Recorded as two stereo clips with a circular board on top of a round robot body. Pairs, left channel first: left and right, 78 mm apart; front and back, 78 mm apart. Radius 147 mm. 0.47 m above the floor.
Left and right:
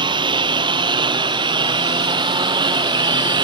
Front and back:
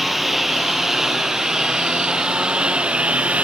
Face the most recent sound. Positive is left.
turn(degrees=-105)